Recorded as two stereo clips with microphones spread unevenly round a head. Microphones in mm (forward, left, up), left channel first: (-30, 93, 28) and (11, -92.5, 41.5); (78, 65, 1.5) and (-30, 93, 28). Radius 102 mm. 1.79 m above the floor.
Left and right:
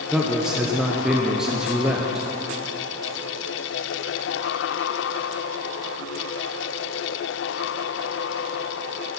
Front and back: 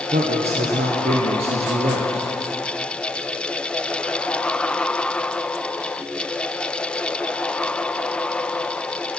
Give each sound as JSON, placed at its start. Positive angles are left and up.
{"t": 0.1, "sound": "a man speaking", "azimuth_deg": -165, "distance_m": 0.9}